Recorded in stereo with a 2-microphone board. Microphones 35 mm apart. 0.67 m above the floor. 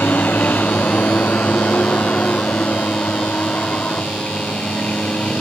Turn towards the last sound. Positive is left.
turn(degrees=45)  # may be behind; listen again after turning